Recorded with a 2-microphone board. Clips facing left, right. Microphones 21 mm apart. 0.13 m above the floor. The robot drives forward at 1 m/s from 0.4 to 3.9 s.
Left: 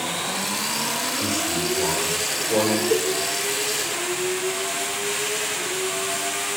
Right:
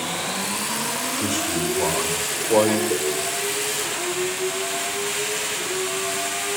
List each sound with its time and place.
1.2 s a man speaking: 30° right (ahead or behind), 8.5 m; by 2.8 s 40° right (ahead or behind), 7 m
2.9 s a cowbell: 35° left (ahead or behind), 5 m; by 3.1 s 30° left (ahead or behind), 5.5 m